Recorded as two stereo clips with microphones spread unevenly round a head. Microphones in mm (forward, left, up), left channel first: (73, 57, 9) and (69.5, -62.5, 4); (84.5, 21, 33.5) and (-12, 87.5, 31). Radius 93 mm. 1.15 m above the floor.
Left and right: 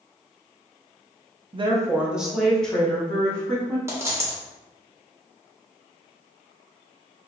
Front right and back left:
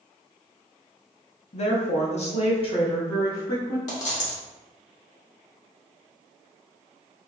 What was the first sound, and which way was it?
A woman speaking, 60° right.